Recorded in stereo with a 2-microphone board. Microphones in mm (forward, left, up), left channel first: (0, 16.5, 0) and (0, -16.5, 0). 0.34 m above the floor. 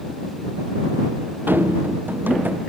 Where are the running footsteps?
85° right; by 2.6 s 65° right (ahead or behind).